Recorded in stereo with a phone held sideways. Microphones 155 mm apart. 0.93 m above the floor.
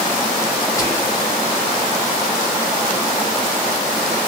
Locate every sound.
0.8 s whispering: 20° left (ahead or behind), 0.7 m